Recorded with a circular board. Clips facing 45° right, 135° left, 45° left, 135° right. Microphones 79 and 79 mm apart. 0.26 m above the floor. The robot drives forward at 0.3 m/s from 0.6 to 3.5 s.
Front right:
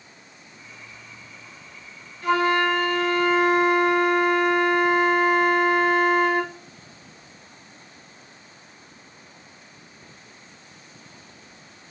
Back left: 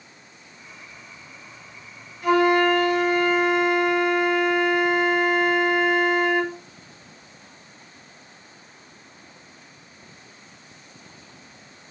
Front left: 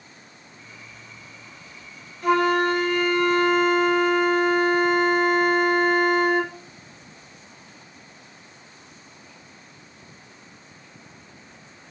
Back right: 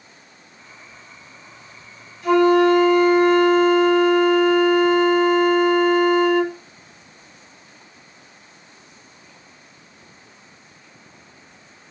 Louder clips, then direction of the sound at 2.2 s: Back left 3 dB, back right 6 dB; 60° left.